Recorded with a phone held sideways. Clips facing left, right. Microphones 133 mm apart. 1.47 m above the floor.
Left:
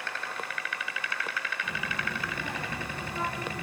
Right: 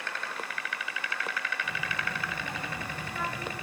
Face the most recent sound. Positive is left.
turn(degrees=30)  # may be behind; listen again after turning